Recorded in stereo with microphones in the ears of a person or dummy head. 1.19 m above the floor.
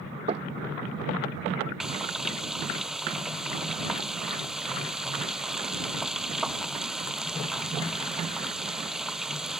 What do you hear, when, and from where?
0.3 s knocking: 35° right (ahead or behind)
1.8 s frying: 5° right (ahead or behind)